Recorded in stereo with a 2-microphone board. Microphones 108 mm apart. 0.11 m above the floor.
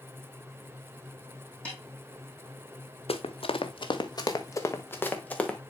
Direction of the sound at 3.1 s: 80° left.